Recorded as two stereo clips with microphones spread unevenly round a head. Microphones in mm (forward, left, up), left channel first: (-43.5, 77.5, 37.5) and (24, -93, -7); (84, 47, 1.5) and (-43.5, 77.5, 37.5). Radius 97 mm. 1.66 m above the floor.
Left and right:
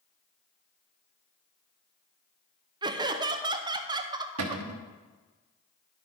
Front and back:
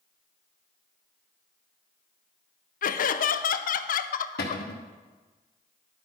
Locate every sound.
2.8 s laughter: 5° left, 0.6 m
4.4 s a cupboard door: 55° right, 0.9 m